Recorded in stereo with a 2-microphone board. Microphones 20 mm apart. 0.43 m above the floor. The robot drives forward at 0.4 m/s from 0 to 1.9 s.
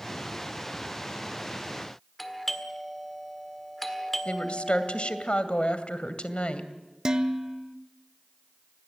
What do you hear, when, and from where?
2.2 s a doorbell: 10° left (ahead or behind), 1.7 m
4.2 s a woman speaking: 60° left (ahead or behind), 2 m
7.0 s dishes clattering: 35° right (ahead or behind), 1.0 m